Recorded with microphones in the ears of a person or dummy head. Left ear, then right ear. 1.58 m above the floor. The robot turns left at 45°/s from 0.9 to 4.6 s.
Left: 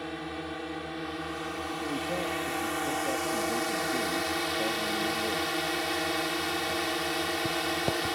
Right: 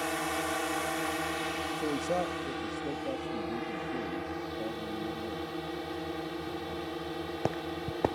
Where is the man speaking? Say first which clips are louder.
Right 1 dB; 115° right; by 5.5 s 120° left.